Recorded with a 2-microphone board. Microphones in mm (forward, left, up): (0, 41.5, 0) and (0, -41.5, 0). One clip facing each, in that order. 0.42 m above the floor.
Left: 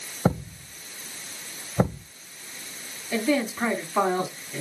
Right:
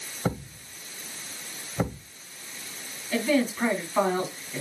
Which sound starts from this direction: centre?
A man speaking, at 3.1 s.